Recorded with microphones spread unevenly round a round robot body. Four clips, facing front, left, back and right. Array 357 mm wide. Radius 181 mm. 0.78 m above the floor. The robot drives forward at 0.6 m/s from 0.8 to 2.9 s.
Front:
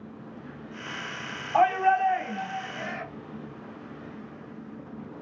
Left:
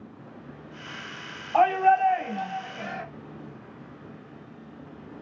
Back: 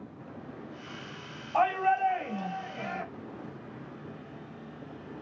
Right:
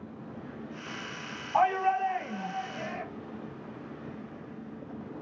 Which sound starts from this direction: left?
A shout, at 1.5 s.